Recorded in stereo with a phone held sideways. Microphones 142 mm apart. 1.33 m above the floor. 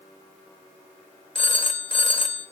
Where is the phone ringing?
40° left (ahead or behind), 1.3 m.